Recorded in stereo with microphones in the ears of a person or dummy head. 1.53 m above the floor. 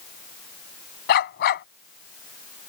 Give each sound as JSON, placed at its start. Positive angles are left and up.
{"t": 1.1, "sound": "a dog barking", "side_deg": 55}